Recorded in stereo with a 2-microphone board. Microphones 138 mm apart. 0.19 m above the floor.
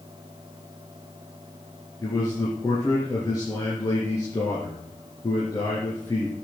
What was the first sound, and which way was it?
A man speaking, 30° left (ahead or behind).